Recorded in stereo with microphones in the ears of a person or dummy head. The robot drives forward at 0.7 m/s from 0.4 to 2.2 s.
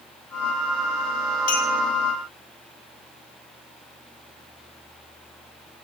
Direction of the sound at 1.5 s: 45° left (ahead or behind).